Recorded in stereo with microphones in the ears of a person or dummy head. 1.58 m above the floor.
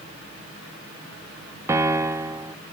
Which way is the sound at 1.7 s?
15° right (ahead or behind).